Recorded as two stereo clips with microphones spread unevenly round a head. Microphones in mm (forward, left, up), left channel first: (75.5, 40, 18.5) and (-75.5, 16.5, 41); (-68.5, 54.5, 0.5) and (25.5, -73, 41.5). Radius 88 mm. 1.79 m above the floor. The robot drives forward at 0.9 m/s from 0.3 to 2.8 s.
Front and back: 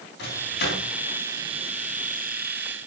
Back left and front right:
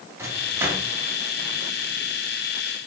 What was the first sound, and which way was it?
A microwave, 20° left.